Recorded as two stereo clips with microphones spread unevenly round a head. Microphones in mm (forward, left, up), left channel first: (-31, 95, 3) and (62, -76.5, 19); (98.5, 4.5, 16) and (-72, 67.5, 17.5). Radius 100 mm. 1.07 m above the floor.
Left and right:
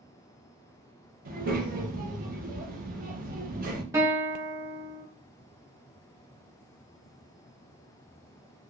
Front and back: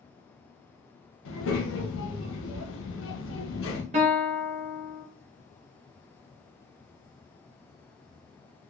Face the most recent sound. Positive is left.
turn(degrees=-140)